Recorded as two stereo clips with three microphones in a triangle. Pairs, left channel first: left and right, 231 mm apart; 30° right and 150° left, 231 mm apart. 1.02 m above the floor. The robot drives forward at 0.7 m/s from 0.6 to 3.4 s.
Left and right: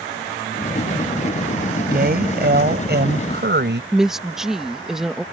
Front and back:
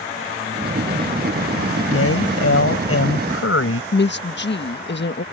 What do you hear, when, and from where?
1.9 s a woman speaking: 40° right; by 3.8 s 50° right
3.9 s a woman speaking: straight ahead